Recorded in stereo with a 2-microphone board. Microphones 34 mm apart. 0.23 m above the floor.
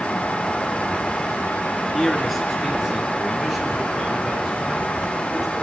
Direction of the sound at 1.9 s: Centre (ahead or behind).